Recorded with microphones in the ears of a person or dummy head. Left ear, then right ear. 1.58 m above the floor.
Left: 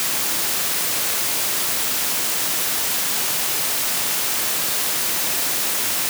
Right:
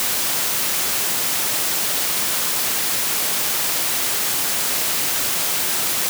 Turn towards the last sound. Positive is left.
No sound to turn to.